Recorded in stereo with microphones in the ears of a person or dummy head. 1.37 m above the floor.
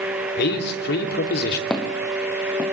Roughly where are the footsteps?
Centre.